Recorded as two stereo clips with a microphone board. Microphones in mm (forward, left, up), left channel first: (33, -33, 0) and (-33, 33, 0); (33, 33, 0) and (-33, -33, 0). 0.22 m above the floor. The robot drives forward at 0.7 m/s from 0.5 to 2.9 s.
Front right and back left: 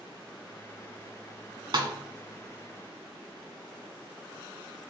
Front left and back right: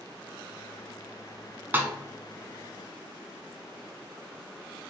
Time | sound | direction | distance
1.7 | a snare drum | 160° left | 0.6 m